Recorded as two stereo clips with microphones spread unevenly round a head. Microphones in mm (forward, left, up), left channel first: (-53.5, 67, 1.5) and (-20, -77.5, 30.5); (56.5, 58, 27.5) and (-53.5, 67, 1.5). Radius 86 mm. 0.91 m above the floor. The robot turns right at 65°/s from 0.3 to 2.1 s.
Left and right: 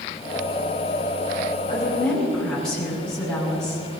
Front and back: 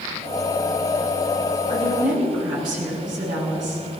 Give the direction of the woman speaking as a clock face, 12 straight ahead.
7 o'clock.